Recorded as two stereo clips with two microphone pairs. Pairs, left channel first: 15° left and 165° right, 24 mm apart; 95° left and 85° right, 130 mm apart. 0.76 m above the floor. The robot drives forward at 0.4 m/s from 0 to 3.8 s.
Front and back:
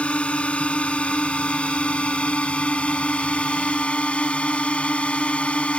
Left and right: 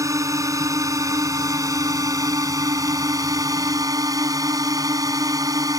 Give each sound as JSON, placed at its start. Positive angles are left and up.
{"t": 0.0, "sound": "a drone", "azimuth_deg": -20}